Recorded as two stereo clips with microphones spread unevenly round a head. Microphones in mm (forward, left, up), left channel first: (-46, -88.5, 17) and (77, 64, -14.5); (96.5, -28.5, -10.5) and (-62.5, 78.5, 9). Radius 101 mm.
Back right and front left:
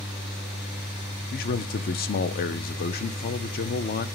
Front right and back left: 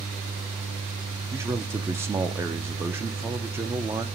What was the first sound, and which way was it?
A fan, 135° left.